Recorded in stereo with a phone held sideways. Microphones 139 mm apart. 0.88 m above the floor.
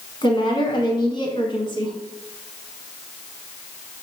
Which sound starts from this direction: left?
A woman speaking, at 0.2 s.